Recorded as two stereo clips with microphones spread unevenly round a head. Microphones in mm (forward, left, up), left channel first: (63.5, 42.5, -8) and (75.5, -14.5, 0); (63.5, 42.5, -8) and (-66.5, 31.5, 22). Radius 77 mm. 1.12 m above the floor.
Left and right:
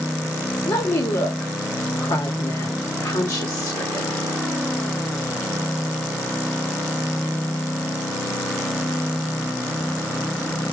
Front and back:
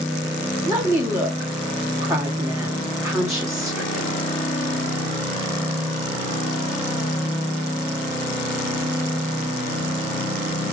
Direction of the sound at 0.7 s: 115° left.